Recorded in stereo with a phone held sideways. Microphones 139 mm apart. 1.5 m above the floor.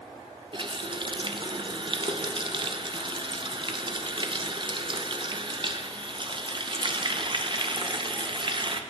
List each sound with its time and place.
0.5 s a running tap: 40° right (ahead or behind), 0.7 m